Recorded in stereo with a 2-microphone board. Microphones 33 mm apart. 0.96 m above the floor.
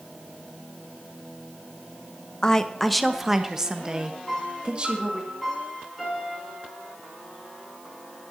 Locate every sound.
2.4 s a woman speaking: 25° left (ahead or behind), 0.8 m; by 5.3 s 35° right (ahead or behind), 2 m
4.3 s a piano: 5° left (ahead or behind), 6.5 m